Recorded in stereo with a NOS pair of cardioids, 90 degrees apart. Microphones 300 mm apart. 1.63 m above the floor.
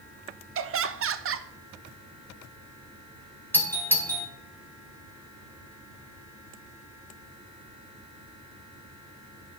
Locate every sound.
0.6 s laughter: 45° right, 1.1 m
3.5 s a doorbell: 5° left, 2 m